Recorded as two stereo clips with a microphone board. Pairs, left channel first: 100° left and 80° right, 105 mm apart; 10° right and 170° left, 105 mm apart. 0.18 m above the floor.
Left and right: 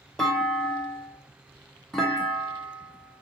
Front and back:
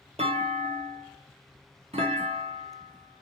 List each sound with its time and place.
0.2 s a clunk: 175° right, 0.9 m